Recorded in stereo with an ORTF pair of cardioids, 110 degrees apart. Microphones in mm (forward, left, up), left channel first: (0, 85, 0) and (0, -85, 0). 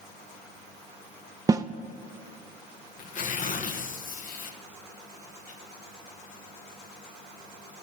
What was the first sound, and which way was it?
A snare drum, 20° right.